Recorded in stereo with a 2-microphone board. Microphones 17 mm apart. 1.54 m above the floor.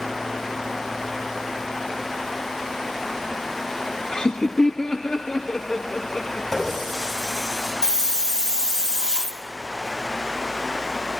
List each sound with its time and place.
4.1 s laughter: 55° left (ahead or behind), 0.6 m; by 6.4 s 75° left (ahead or behind), 1.6 m
6.5 s a running tap: 15° left (ahead or behind), 8.5 m
7.8 s a hiss: 50° right (ahead or behind), 0.9 m